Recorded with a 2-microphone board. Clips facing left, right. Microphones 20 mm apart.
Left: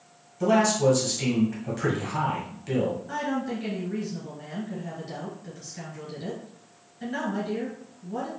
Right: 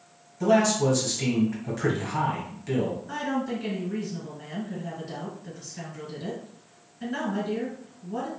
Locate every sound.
0.4 s a man speaking: centre (ahead or behind), 1.3 m
3.1 s a woman speaking: centre (ahead or behind), 1.7 m